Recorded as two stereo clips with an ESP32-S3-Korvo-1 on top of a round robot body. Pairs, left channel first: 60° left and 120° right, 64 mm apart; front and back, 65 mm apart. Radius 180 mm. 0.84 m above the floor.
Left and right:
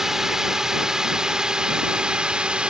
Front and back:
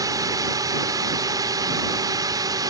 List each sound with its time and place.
0.0 s a drone: 155° left; by 2.7 s 165° left